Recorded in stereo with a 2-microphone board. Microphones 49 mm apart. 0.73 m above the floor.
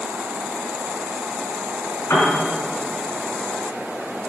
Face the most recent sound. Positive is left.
turn(degrees=70)  # may be behind; listen again after turning